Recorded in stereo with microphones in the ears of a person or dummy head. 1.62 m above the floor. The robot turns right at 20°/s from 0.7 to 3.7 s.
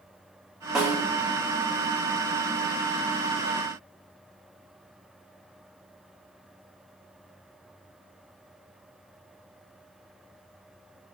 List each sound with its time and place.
0.8 s a snare drum: 5° right (ahead or behind), 0.6 m; by 1.0 s 10° right (ahead or behind), 0.6 m